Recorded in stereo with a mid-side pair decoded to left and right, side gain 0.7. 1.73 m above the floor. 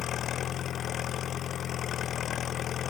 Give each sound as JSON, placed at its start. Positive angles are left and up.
{"t": 0.0, "sound": "an engine running", "azimuth_deg": 45}